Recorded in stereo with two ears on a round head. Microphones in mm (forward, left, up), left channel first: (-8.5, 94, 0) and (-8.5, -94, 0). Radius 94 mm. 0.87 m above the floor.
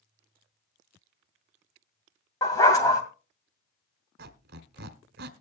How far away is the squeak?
About 1.2 m.